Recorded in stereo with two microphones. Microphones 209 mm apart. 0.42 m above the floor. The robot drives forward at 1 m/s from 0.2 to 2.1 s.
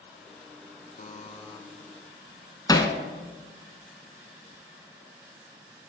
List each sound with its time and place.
1.0 s a buzzer: 40° left (ahead or behind), 0.6 m; by 1.6 s 25° left (ahead or behind), 1.1 m
2.7 s hammering: 20° left (ahead or behind), 0.9 m